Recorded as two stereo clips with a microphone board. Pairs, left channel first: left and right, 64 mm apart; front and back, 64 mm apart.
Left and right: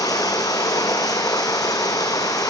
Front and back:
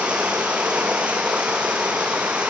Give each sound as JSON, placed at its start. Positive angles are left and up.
{"t": 0.0, "sound": "running water", "azimuth_deg": 110, "distance_m": 3.5}